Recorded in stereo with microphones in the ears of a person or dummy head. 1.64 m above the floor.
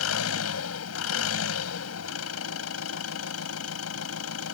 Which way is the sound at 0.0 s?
90° left.